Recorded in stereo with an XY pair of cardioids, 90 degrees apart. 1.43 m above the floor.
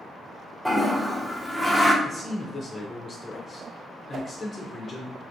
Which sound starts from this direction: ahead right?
A whoosh, at 4.1 s.